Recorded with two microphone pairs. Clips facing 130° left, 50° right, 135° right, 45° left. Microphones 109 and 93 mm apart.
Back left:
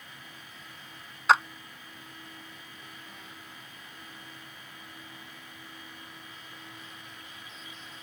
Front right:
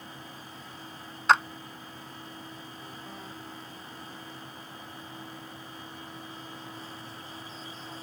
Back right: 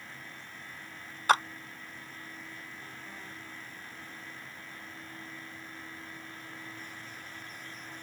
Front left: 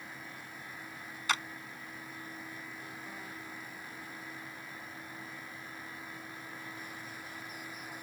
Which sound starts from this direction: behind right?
A clap, at 1.3 s.